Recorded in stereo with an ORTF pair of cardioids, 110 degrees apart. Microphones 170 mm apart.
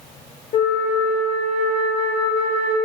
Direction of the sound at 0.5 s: 45° left.